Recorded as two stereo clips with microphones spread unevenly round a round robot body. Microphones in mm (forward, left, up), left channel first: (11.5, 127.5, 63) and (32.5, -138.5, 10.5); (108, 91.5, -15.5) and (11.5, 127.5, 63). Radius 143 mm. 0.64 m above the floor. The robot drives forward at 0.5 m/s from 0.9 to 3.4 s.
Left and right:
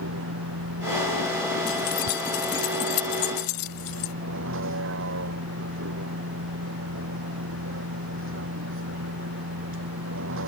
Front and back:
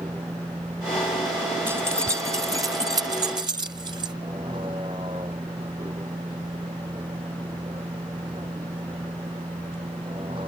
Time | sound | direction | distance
0.0 | a vehicle | 130° right | ?
1.7 | keys jangling | 85° left | ?